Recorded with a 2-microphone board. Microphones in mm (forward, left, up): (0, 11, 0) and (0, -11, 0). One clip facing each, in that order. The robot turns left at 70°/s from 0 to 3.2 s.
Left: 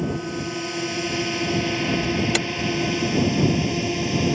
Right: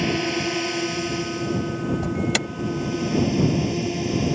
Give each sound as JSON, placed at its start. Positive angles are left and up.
{"t": 0.0, "sound": "a drone", "side_deg": -55}
{"t": 2.0, "sound": "an alarm", "side_deg": -15}